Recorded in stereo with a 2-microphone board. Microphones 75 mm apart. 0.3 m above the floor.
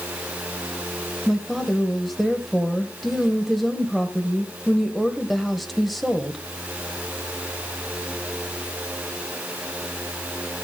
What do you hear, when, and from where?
1.3 s a woman speaking: centre (ahead or behind), 1.2 m